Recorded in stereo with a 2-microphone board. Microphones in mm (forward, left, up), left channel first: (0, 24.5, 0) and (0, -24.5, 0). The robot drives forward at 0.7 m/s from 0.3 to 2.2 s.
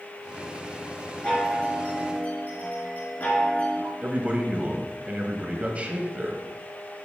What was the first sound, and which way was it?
A chime, 25° left (ahead or behind).